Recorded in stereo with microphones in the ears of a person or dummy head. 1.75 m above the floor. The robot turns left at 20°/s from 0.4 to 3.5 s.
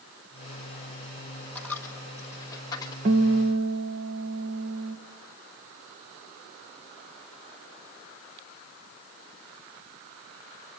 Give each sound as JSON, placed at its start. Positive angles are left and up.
{"t": 1.6, "sound": "a dropped coin", "side_deg": 10, "distance_m": 1.2}
{"t": 3.0, "sound": "a guitar", "side_deg": -30, "distance_m": 1.0}